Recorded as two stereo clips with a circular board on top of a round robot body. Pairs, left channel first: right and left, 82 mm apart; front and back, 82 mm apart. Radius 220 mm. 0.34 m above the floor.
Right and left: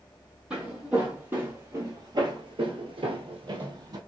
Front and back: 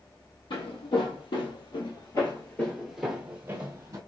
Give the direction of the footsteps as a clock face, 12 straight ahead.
12 o'clock.